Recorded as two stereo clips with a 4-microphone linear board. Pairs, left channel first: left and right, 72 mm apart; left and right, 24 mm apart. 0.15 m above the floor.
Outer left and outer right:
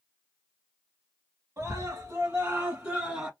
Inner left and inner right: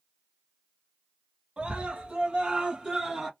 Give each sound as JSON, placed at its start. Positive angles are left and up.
{"t": 1.6, "sound": "a scream", "side_deg": -40, "distance_m": 1.4}